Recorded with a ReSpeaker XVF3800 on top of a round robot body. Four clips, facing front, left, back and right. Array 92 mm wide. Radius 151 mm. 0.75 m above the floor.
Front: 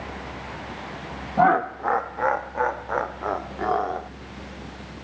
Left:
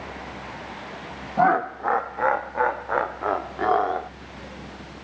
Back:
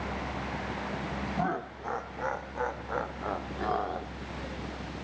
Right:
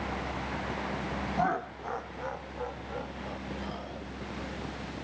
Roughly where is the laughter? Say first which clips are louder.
Left 12 dB, front 16 dB; ahead left.